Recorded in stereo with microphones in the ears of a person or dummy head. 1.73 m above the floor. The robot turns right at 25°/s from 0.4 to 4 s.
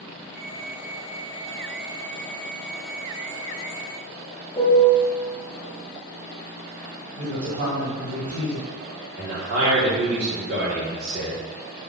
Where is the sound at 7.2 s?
50° right (ahead or behind), 1.9 m.